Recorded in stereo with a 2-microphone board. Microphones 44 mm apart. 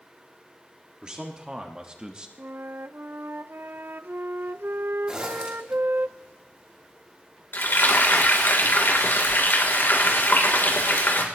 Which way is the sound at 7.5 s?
60° left (ahead or behind).